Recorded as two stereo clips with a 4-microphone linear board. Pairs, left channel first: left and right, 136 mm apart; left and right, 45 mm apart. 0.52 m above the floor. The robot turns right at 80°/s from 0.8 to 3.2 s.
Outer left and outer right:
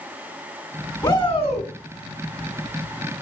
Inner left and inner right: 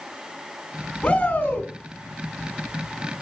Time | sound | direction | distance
1.0 | a shout | 40° left | 1.9 m